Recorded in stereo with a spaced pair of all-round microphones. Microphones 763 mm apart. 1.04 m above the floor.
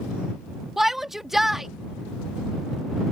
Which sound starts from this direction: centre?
A shout, at 0.8 s.